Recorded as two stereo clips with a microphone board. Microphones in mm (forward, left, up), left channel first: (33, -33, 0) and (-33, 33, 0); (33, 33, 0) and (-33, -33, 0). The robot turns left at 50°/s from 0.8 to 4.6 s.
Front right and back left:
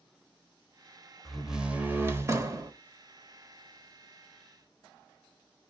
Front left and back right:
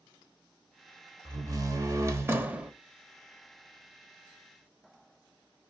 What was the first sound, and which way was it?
A door slam, 135° right.